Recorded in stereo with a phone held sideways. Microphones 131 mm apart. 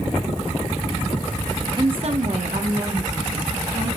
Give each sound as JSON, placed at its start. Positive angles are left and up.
{"t": 1.8, "sound": "a woman speaking", "side_deg": -30, "distance_m": 1.0}